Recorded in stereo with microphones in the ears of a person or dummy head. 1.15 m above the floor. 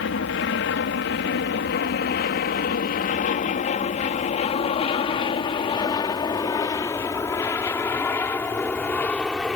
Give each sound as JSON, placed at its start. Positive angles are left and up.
{"t": 0.0, "sound": "an aircraft", "side_deg": 60}